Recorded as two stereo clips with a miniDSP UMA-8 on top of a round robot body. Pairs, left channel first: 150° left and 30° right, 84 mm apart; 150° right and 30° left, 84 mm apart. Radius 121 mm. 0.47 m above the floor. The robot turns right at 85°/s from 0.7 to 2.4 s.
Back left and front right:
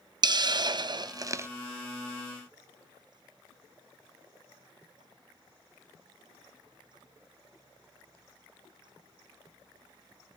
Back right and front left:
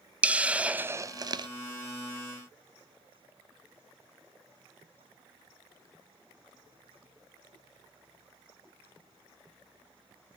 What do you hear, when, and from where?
0.2 s a hiss: 40° right, 0.6 m; by 1.5 s 25° left, 0.6 m